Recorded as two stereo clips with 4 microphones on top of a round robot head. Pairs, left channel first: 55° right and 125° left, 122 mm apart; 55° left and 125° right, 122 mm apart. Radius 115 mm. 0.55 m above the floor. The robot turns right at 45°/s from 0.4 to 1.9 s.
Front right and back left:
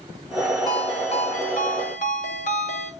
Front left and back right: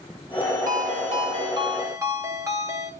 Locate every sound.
0.7 s a ringtone: 115° right, 1.8 m; by 2.9 s 55° right, 1.8 m